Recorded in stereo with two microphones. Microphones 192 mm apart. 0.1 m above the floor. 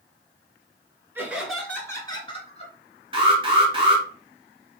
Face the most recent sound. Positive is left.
turn(degrees=-25)  # may be behind; listen again after turning